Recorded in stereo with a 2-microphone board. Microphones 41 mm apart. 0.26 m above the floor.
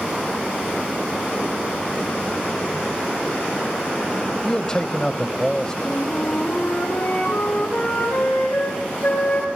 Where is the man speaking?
20° left (ahead or behind), 0.9 m.